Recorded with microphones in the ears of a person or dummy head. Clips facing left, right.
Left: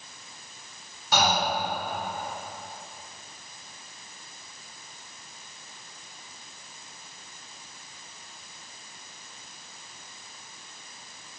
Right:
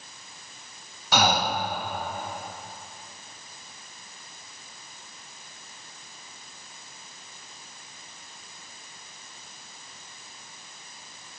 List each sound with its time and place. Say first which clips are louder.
1.1 s breathing: right 1 dB; 55° right (ahead or behind), 1.0 m